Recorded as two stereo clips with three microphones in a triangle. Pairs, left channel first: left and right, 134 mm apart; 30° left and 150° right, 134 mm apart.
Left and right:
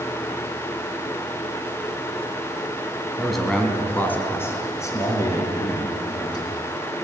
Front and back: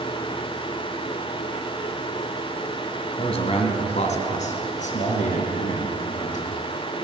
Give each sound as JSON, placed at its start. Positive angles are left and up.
{"t": 3.2, "sound": "a man speaking", "azimuth_deg": 0, "distance_m": 2.5}